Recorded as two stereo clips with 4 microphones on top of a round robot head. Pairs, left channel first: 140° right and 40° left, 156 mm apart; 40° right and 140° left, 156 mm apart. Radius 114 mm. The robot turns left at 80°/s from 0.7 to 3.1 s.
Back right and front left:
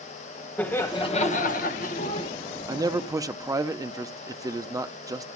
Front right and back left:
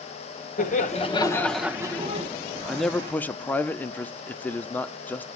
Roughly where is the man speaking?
Ahead left.